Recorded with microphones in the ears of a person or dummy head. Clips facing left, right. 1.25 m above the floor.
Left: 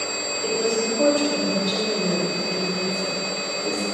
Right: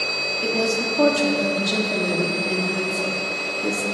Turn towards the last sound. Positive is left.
turn(degrees=-75)  # may be behind; listen again after turning